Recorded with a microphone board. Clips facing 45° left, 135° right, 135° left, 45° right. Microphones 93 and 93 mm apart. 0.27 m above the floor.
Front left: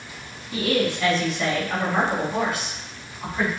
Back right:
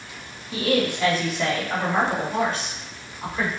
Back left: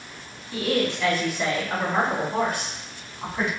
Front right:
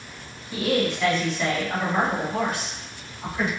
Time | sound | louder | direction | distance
0.5 | a woman speaking | even, front right 1 dB | 80° right | 1.2 m